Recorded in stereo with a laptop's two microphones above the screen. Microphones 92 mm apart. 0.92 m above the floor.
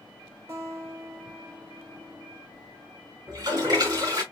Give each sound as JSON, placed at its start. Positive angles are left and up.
{"t": 0.5, "sound": "a guitar", "side_deg": -30, "distance_m": 2.5}
{"t": 3.3, "sound": "a toilet flushing", "side_deg": -40, "distance_m": 3.5}